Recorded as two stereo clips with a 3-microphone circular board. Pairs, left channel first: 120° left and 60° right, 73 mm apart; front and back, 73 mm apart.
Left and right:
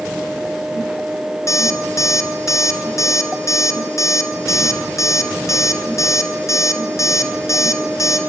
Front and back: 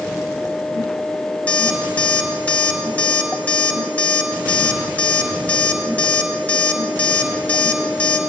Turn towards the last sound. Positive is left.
turn(degrees=70)